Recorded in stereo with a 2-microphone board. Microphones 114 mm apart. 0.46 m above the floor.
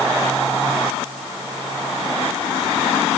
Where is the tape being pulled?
No tape being pulled in this recording.